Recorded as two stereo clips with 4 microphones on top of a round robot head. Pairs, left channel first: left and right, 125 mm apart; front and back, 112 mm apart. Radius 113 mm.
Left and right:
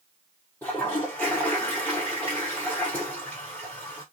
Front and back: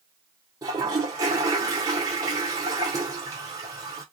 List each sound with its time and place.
0.6 s a toilet flushing: 165° left, 0.7 m